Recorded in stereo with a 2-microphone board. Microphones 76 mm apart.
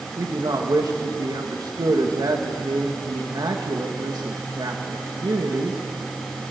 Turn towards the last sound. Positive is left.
turn(degrees=-65)  # may be behind; listen again after turning